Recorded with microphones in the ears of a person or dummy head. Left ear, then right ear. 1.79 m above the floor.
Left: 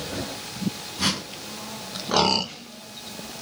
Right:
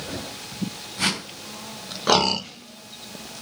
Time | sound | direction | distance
1.0 | a whoosh | 60° right (ahead or behind) | 3 m